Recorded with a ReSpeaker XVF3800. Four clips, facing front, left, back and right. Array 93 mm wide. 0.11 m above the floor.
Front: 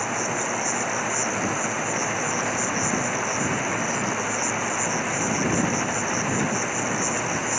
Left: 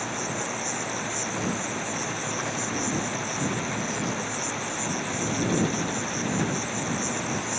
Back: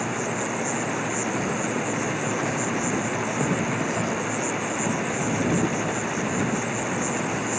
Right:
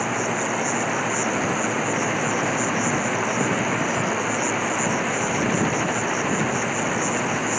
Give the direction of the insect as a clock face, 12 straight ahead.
4 o'clock.